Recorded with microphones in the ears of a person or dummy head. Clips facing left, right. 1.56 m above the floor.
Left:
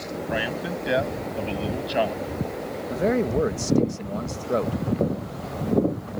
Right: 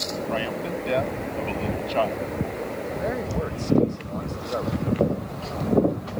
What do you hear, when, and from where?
0.3 s a man speaking: 15° left (ahead or behind)
2.9 s a man speaking: 35° left (ahead or behind)